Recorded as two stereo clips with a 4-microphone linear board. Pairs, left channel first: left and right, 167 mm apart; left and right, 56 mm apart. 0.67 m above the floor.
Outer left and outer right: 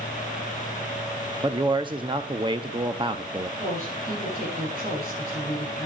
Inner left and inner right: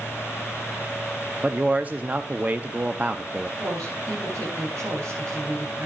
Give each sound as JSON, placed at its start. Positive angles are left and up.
{"t": 1.4, "sound": "a man speaking", "side_deg": -30, "distance_m": 0.7}
{"t": 3.6, "sound": "a woman speaking", "side_deg": -60, "distance_m": 8.5}